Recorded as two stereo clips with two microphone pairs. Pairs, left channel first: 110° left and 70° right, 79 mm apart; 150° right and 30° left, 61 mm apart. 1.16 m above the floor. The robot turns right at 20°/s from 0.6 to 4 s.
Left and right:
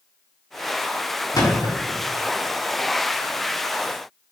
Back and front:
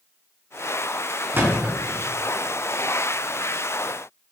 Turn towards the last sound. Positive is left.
turn(degrees=135)